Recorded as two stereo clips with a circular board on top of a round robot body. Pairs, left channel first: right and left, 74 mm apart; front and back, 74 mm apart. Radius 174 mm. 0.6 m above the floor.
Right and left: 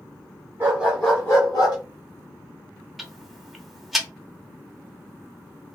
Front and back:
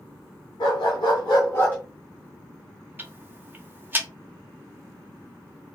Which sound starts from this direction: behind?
Ticking, at 3.0 s.